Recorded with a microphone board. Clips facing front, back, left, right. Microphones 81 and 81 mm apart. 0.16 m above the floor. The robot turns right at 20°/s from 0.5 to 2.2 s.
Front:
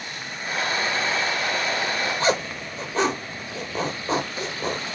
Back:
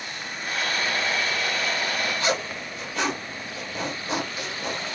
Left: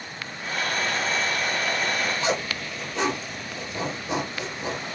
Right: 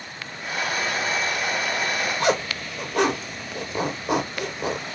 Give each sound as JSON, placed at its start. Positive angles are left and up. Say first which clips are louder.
{"t": 2.2, "sound": "a zipper", "louder": "front 3 dB, right 4 dB", "azimuth_deg": -60, "distance_m": 0.9}